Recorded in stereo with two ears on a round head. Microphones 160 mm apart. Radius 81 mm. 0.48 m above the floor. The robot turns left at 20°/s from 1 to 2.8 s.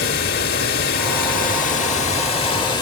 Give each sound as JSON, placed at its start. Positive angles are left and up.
{"t": 0.0, "sound": "running water", "azimuth_deg": 60, "distance_m": 1.1}